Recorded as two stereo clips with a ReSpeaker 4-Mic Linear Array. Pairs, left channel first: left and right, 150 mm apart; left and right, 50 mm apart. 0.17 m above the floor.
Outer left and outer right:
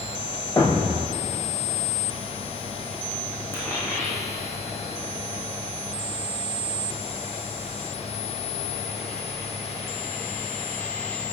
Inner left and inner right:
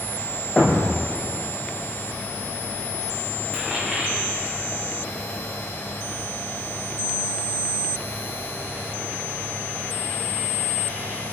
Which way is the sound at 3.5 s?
15° left (ahead or behind).